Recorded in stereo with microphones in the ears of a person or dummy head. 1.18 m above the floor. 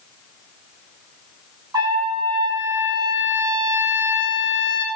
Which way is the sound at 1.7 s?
20° right (ahead or behind).